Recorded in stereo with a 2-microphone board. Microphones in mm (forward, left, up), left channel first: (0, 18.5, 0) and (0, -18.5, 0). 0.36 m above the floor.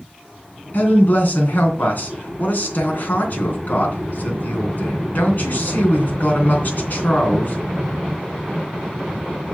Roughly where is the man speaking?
Left.